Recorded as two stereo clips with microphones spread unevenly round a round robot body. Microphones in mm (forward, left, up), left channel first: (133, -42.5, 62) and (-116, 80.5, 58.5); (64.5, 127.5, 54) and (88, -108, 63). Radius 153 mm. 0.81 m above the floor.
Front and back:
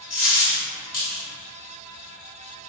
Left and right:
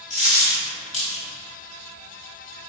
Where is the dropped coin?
35° left, 1.2 m.